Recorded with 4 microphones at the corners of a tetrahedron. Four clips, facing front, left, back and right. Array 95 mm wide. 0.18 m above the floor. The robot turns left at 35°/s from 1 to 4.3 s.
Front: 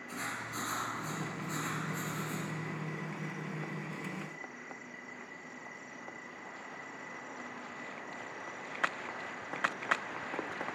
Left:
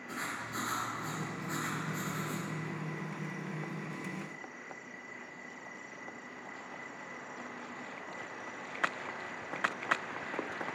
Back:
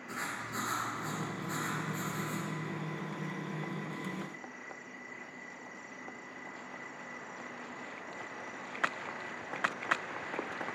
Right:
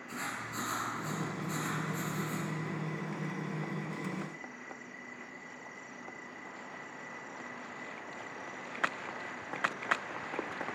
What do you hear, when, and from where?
0.1 s writing: 145° left, 2.5 m; by 2.5 s 95° left, 2.5 m